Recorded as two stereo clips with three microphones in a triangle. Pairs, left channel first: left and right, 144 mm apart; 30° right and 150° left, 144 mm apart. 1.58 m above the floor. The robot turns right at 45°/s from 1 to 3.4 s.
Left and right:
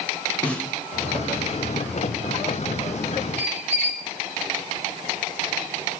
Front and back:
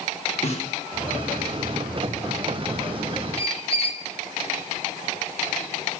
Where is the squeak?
70° right, 0.8 m.